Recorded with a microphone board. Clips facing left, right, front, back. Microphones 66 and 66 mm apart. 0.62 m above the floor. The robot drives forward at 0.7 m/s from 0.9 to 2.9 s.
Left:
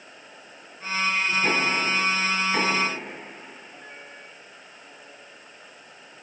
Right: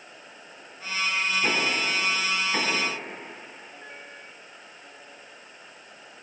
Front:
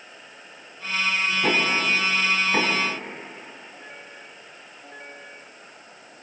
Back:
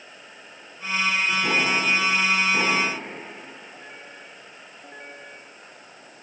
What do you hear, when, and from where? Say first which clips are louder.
1.4 s knocking: left 2 dB, front 2 dB; 5° right, 6 m